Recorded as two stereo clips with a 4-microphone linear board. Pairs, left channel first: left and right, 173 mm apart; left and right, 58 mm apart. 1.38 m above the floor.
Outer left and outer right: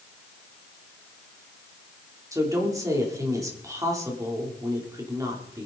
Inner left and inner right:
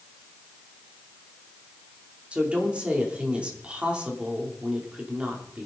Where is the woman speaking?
20° right (ahead or behind), 3.5 m.